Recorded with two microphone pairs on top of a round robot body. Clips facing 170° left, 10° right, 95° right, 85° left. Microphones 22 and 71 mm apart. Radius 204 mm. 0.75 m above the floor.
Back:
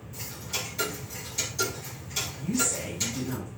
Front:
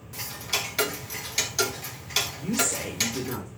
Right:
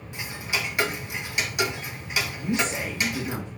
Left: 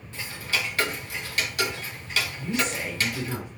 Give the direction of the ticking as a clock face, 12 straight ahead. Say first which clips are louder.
Front 5 dB, even; 1 o'clock.